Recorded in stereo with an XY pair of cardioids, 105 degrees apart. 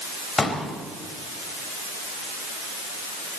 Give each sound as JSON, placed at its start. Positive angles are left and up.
{"t": 0.4, "sound": "a pop", "azimuth_deg": 25, "distance_m": 4.0}